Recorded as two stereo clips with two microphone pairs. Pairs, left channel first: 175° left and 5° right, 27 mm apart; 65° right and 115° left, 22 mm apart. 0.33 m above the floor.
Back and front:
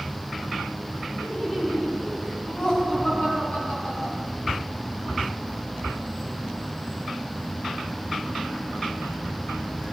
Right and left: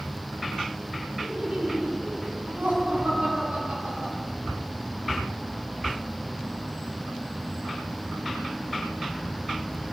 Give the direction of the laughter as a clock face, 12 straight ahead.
8 o'clock.